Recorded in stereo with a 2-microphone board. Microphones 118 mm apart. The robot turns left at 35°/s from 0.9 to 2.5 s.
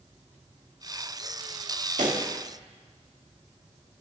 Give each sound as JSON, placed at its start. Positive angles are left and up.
{"t": 2.0, "sound": "a pop", "side_deg": -75, "distance_m": 1.9}